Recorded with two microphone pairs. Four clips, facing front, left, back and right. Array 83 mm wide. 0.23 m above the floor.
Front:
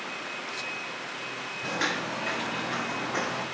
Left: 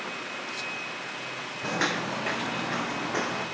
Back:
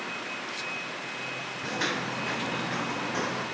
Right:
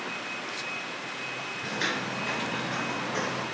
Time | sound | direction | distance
1.6 | footsteps | 85° left | 0.7 m